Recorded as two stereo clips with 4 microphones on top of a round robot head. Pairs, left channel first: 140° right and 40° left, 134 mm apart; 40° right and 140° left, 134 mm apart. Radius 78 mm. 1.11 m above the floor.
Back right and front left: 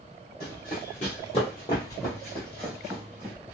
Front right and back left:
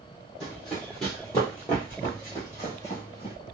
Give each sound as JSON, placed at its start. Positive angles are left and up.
{"t": 0.4, "sound": "running footsteps", "azimuth_deg": -130, "distance_m": 1.6}